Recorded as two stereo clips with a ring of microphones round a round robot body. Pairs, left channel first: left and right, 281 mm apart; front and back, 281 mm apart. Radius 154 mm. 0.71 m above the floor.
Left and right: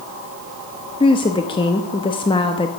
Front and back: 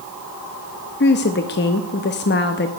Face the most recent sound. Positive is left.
turn(degrees=25)